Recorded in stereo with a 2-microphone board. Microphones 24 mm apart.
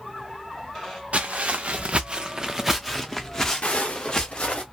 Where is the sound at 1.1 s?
85° right, 0.9 m; by 4.6 s 35° left (ahead or behind), 1.6 m.